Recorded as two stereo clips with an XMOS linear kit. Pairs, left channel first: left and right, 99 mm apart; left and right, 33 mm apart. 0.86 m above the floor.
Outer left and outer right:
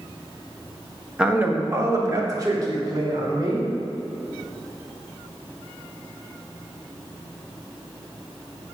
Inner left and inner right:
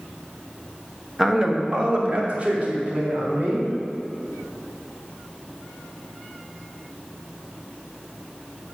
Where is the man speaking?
10° right (ahead or behind), 1.2 m; by 3.7 s 45° right (ahead or behind), 4.5 m.